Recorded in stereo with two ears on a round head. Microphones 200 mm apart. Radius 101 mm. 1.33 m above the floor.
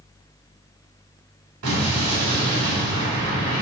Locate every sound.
1.6 s an explosion: 55° right (ahead or behind), 4 m